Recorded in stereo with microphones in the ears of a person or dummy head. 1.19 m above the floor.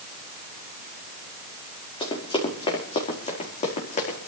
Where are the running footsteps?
30° left (ahead or behind), 5 m; by 4.3 s 45° left (ahead or behind), 5 m.